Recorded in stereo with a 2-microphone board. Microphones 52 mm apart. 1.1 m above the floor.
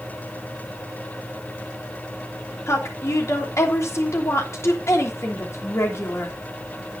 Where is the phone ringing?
No phone ringing in this recording.